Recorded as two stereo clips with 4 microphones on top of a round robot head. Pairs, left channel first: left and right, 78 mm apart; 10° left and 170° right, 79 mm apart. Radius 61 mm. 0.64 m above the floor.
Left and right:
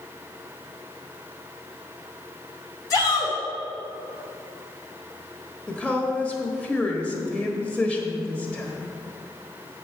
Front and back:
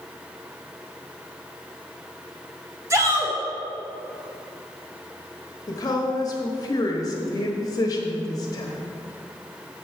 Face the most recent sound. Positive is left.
turn(degrees=15)